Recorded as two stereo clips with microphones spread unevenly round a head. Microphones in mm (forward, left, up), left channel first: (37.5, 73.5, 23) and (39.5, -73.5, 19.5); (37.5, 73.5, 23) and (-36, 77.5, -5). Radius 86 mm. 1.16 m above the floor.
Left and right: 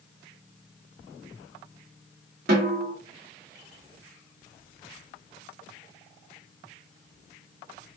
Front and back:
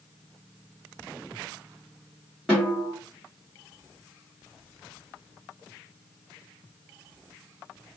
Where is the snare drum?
100° right, 1.8 m.